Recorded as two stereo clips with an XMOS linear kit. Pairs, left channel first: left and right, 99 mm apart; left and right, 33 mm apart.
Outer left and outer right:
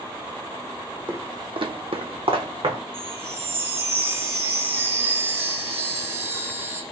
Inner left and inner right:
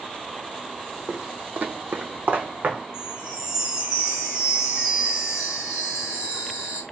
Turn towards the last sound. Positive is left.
turn(degrees=-25)  # may be behind; listen again after turning